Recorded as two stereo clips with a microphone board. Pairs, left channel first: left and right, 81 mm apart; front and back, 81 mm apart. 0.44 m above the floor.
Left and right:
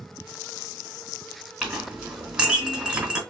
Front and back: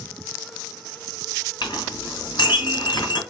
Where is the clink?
15° right, 2 m.